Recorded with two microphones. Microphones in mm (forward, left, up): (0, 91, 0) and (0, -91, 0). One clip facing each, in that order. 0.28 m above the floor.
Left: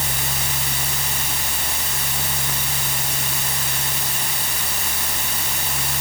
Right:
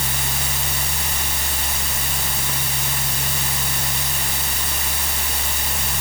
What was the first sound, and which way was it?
Only background noise.